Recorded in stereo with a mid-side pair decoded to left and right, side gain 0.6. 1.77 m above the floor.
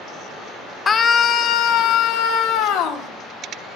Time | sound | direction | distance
0.9 | a scream | 35° left | 1.2 m